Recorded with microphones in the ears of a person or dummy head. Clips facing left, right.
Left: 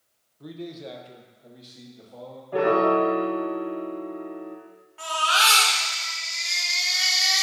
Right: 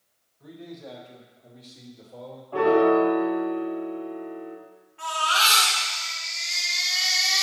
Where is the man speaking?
55° left (ahead or behind), 1.1 m; by 2.4 s 5° right (ahead or behind), 2.5 m.